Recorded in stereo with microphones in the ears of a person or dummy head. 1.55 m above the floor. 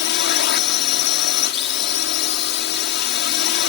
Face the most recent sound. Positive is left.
turn(degrees=60)  # may be behind; listen again after turning